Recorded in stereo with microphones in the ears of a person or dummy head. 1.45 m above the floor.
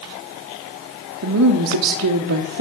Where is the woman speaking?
60° right (ahead or behind), 0.8 m.